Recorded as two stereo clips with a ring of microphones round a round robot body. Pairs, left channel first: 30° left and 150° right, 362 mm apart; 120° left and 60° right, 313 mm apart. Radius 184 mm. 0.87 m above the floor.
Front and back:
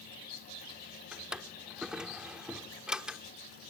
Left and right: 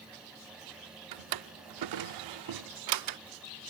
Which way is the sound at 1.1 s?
60° right.